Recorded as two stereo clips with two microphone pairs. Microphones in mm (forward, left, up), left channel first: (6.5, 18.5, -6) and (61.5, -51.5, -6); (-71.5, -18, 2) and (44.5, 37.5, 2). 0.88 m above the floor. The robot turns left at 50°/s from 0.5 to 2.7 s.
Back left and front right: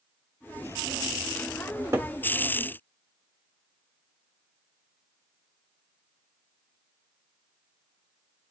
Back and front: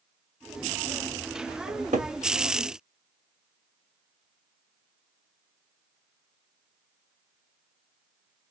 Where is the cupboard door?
20° left, 1.1 m; by 2.1 s 5° right, 1.1 m.